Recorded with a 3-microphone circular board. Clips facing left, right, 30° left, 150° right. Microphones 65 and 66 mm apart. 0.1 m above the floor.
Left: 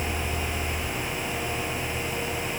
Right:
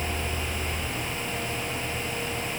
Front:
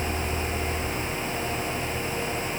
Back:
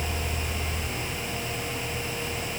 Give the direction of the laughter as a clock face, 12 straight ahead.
No laughter in this recording.